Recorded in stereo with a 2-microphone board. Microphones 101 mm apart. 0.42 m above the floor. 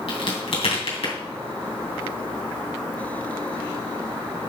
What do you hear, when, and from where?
0.1 s a crack: 70° left (ahead or behind), 2.5 m